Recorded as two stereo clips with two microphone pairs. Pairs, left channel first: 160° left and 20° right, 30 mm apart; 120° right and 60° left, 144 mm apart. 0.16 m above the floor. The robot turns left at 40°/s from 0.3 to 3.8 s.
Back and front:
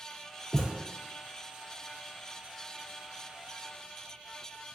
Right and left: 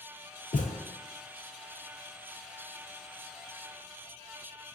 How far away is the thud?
About 0.5 m.